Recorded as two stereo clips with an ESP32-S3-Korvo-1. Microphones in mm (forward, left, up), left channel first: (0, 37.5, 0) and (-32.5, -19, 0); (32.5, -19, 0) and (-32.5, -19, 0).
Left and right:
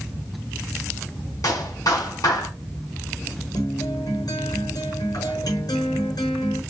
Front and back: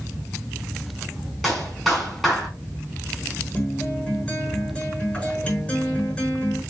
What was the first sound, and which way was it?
A clap, 85° left.